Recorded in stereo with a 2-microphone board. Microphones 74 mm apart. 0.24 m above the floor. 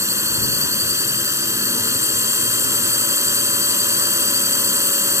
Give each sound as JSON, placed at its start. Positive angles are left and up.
{"t": 0.0, "sound": "a drone", "side_deg": -40}